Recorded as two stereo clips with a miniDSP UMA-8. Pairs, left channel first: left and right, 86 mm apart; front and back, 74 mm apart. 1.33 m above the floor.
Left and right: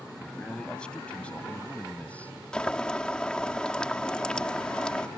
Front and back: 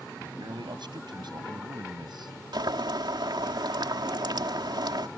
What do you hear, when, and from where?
0.2 s a man speaking: 170° left; by 2.4 s 165° left
2.5 s boiling: 170° left